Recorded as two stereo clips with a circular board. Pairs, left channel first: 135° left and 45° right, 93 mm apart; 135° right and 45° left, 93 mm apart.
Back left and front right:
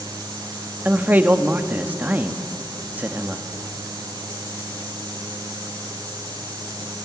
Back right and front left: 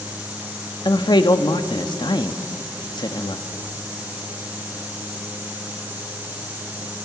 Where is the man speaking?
115° right, 1.2 m.